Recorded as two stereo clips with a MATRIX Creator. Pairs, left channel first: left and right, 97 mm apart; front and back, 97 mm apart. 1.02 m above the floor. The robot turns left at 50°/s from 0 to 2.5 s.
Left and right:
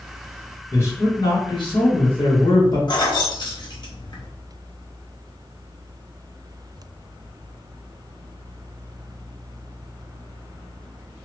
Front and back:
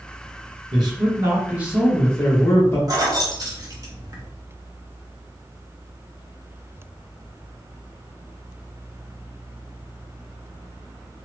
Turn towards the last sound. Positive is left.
turn(degrees=125)